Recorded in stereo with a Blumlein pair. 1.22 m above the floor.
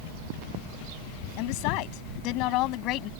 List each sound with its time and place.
1.4 s a woman speaking: 45° left; by 3.1 s 35° left